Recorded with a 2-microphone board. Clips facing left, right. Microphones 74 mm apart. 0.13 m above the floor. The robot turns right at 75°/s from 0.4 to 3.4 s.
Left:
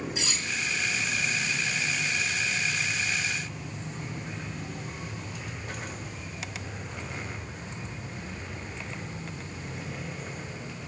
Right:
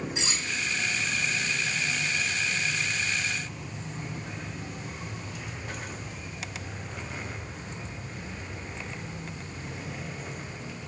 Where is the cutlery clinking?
25° right (ahead or behind), 0.7 m.